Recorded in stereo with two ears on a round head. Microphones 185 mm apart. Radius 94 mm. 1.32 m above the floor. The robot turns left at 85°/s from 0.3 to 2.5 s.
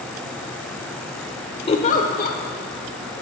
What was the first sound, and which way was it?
A giggle, 135° left.